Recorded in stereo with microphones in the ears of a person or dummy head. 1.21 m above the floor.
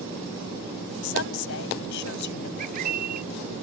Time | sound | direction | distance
1.0 | a woman speaking | 75° left (ahead or behind) | ?
2.6 | a bird | 55° right (ahead or behind) | ?